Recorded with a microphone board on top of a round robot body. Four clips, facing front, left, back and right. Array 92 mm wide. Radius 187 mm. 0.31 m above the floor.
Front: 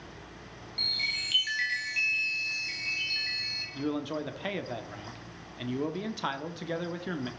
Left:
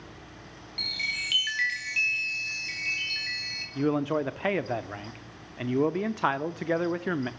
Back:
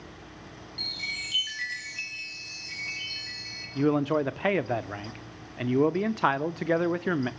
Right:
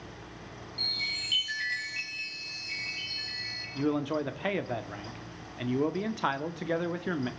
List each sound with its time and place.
0.8 s a chime: 70° left, 4.5 m
3.8 s a man speaking: 155° left, 1.2 m